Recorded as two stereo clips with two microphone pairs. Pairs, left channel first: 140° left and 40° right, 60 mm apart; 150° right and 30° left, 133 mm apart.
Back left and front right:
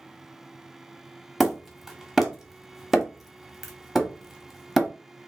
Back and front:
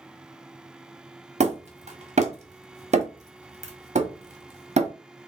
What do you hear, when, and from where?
1.4 s hammering: 45° left, 0.9 m